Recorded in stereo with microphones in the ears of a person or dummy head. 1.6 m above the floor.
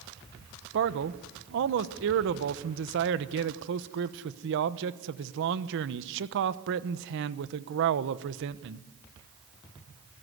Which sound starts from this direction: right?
A man speaking, at 0.7 s.